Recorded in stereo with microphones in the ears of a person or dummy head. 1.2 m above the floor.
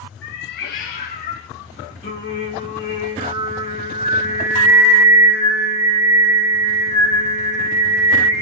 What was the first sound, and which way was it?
A cat meowing, 60° left (ahead or behind).